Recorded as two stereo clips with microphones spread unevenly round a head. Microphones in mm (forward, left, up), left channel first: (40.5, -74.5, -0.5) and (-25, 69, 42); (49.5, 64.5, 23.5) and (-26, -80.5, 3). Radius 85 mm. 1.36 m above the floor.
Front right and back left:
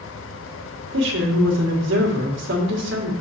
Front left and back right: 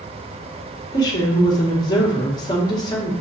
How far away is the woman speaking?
About 1.7 m.